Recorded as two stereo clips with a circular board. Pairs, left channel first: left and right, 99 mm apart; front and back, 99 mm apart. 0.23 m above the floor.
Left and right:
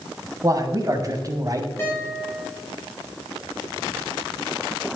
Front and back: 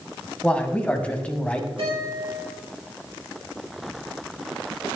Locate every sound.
0.4 s a man speaking: 70° right, 1.8 m
1.8 s a guitar: 155° left, 7 m